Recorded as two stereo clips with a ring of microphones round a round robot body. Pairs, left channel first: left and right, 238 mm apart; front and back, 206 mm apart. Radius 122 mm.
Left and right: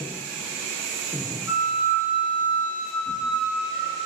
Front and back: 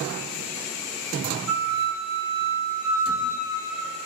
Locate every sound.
1.5 s a flute: 175° right, 0.9 m